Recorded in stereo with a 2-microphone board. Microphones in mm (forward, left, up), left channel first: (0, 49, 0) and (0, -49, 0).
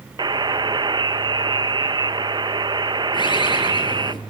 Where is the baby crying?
I don't hear a baby crying.